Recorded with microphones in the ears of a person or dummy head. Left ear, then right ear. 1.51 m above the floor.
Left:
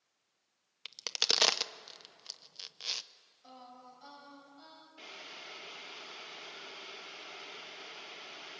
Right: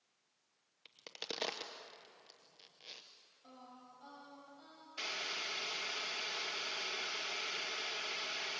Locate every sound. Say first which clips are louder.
0.8 s a crack: left 15 dB; 50° left (ahead or behind), 0.8 m
3.4 s singing: left 5 dB; 25° left (ahead or behind), 6 m
5.0 s boiling: right 8 dB; 60° right (ahead or behind), 1.9 m